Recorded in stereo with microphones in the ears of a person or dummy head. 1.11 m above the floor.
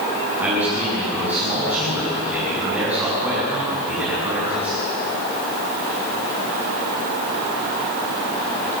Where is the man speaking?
5° right (ahead or behind), 9.5 m.